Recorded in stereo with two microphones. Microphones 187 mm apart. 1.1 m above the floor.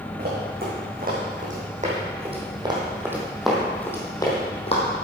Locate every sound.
0.2 s running footsteps: 60° right (ahead or behind), 4.5 m; by 4.8 s 35° left (ahead or behind), 2.5 m